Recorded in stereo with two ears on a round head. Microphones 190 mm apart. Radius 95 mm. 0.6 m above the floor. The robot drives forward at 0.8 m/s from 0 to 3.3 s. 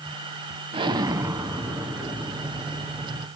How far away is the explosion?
About 0.5 m.